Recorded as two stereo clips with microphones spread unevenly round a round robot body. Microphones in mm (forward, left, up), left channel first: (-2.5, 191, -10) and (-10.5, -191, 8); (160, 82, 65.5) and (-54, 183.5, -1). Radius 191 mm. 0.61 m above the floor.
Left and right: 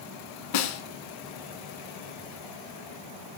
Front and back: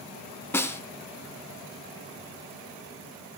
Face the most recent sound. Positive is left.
turn(degrees=55)